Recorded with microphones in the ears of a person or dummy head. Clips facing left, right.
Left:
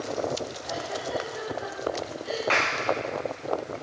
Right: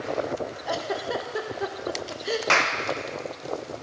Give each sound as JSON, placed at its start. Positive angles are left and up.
{"t": 0.7, "sound": "a giggle", "side_deg": -70, "distance_m": 0.8}
{"t": 2.5, "sound": "a clap", "side_deg": -50, "distance_m": 0.7}